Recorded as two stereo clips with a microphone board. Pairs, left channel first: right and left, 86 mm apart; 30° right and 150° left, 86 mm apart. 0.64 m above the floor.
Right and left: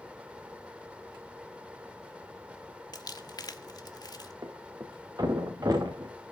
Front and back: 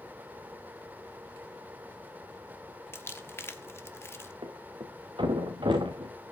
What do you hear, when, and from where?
2.9 s crumpling: 80° right, 1.5 m
4.4 s a thud: 135° left, 4.5 m